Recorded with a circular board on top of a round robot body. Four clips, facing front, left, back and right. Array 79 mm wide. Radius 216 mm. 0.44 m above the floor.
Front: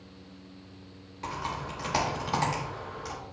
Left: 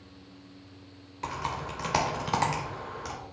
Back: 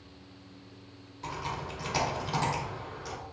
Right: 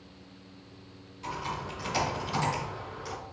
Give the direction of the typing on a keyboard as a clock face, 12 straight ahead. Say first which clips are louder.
Left 2 dB, front 2 dB; 10 o'clock.